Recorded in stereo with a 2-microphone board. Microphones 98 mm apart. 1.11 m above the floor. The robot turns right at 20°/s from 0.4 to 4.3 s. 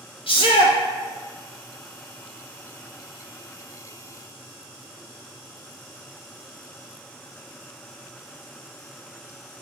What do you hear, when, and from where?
0.3 s a shout: 65° left (ahead or behind), 0.9 m; by 0.8 s 75° left (ahead or behind), 0.9 m